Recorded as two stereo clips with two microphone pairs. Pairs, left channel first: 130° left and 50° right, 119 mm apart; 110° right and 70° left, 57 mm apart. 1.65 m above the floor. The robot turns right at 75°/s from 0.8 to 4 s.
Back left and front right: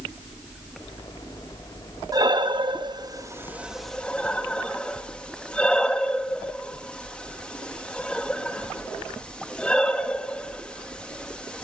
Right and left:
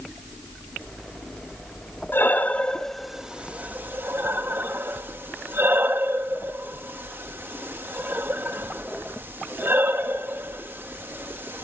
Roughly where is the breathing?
Right.